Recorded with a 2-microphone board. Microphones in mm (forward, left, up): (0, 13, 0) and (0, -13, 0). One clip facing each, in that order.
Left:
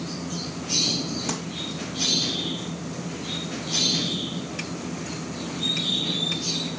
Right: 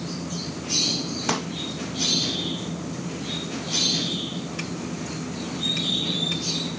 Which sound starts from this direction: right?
A pop, at 1.3 s.